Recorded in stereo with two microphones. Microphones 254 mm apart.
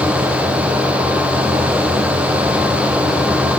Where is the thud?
I don't hear a thud.